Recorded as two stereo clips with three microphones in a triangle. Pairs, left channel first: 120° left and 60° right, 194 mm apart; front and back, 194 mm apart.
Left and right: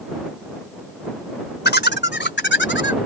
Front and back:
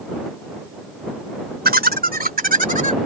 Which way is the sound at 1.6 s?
145° left.